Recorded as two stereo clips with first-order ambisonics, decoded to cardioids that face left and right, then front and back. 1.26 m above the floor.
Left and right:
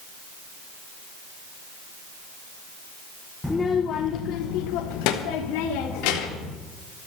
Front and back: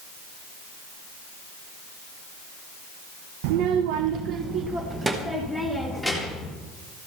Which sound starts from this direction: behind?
A child speaking, at 3.4 s.